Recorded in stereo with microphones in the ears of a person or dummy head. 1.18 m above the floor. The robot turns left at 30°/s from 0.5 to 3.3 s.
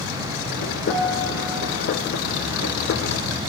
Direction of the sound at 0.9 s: 5° left (ahead or behind).